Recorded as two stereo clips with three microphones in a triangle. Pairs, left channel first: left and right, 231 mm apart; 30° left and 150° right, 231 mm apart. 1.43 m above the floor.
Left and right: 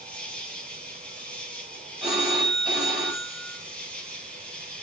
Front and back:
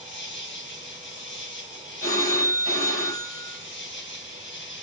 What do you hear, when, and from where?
0.0 s an insect: 5° left, 2.5 m
2.0 s a phone ringing: 5° right, 6 m